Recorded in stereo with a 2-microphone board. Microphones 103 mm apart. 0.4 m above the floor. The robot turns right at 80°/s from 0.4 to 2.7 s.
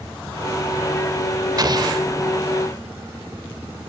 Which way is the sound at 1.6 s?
110° right.